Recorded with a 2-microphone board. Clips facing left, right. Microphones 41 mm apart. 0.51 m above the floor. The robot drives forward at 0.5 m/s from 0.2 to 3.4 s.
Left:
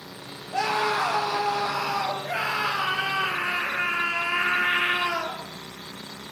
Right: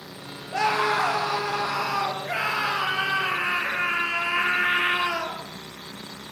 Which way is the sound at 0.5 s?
65° right (ahead or behind).